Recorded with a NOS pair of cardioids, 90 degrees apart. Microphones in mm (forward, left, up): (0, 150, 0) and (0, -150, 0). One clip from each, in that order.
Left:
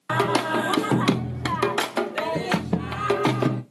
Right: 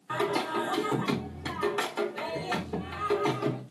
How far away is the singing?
About 0.6 m.